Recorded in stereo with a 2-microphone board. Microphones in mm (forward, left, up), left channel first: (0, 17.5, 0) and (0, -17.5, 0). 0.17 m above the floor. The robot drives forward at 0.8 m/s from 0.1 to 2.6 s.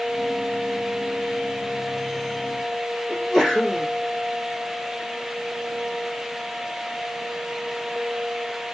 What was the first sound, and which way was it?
A sneeze, 5° left (ahead or behind).